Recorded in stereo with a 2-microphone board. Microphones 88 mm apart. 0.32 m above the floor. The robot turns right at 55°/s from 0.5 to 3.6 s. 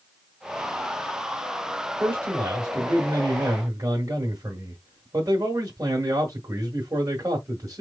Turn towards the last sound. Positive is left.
turn(degrees=-70)